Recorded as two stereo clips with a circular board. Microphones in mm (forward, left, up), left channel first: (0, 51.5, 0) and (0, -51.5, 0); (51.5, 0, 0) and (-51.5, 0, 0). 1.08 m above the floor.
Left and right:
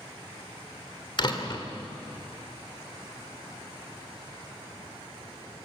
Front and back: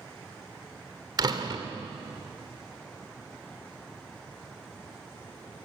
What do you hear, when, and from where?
1.2 s a door slam: 135° left, 2 m